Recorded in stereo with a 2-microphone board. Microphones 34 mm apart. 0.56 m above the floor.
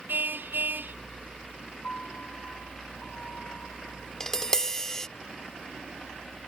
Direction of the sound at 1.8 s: 45° left (ahead or behind).